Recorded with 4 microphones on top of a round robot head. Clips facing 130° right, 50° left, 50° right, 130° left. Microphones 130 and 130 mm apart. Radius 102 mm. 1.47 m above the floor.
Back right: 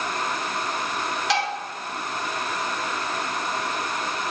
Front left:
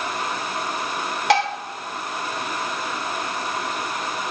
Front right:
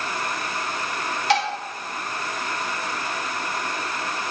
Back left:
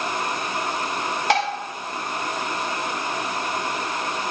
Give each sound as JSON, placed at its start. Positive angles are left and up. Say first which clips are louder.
{"t": 1.3, "sound": "dishes clattering", "louder": "front left 7 dB, even", "azimuth_deg": 85, "distance_m": 1.4}